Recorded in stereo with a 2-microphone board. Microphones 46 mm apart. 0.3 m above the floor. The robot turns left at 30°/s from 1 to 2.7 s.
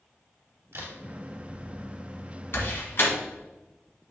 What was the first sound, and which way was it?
A crack, 65° right (ahead or behind).